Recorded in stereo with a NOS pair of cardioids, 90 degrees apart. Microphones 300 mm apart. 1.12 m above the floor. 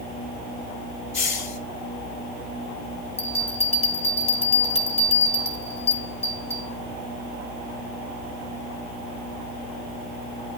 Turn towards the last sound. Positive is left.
turn(degrees=20)